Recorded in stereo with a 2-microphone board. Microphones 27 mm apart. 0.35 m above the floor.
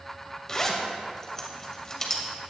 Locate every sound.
0.5 s a zipper: 25° left (ahead or behind), 2 m